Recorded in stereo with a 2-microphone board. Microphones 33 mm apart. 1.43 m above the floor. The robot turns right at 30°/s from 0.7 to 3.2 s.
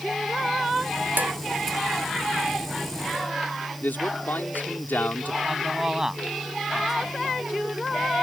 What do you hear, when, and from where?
1.2 s dishes clattering: 75° right (ahead or behind); by 1.3 s 80° right
3.8 s a man speaking: 85° left
5.5 s a man speaking: 20° right (ahead or behind)